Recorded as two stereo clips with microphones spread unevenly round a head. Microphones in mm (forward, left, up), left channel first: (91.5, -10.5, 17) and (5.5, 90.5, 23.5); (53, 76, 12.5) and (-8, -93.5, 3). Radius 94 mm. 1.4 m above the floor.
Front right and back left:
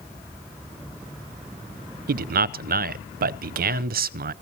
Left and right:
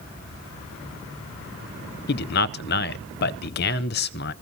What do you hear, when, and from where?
2.1 s a man speaking: 115° left, 0.6 m